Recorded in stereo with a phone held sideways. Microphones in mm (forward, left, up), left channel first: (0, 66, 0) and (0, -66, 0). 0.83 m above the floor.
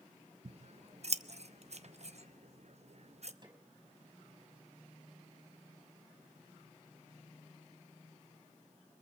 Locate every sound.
0.5 s scissors: 55° right (ahead or behind), 0.8 m
3.4 s a snare drum: 30° right (ahead or behind), 5 m